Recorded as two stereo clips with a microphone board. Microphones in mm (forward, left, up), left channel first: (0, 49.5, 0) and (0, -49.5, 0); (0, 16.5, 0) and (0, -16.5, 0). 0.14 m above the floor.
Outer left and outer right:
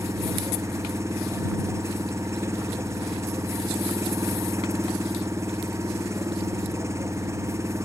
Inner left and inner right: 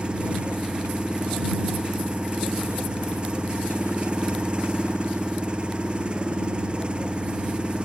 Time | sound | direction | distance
0.0 | an engine running | 30° right (ahead or behind) | ?